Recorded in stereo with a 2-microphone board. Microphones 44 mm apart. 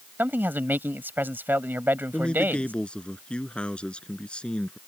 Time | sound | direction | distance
0.2 | a man speaking | 55° right (ahead or behind) | ?
2.1 | a man speaking | 25° left (ahead or behind) | ?